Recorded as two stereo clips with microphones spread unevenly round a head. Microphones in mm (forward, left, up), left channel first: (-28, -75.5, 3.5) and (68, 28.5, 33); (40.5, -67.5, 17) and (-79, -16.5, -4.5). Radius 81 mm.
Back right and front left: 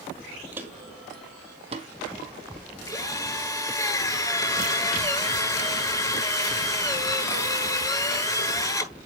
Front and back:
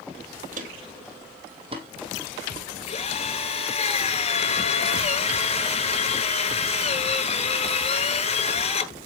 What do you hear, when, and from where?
0.5 s footsteps: 115° left, 1.8 m; by 1.9 s 95° left, 2.5 m
2.9 s a drill: 65° right, 8 m